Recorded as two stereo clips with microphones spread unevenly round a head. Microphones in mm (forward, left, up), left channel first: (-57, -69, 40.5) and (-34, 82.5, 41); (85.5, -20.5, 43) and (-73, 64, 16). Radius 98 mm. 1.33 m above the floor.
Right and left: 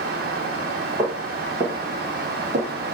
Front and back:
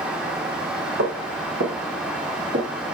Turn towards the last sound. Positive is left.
turn(degrees=120)